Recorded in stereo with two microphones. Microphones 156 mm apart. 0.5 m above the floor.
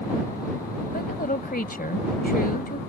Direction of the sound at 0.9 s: 70° left (ahead or behind).